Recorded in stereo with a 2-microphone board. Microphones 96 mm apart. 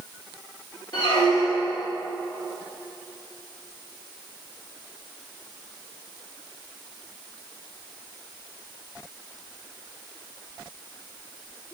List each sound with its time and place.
0.9 s a squeak: 55° left (ahead or behind), 1.9 m